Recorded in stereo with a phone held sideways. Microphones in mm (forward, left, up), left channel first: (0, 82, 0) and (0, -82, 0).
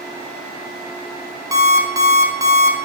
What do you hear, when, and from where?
1.5 s an alarm clock: 20° right (ahead or behind), 0.6 m